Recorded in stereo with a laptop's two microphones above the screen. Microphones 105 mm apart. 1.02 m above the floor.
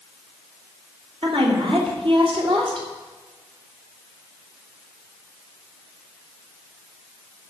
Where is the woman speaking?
60° right (ahead or behind), 3 m.